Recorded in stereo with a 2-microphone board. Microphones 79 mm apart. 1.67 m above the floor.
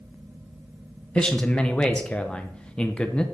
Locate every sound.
1.1 s a man speaking: 15° left (ahead or behind), 0.8 m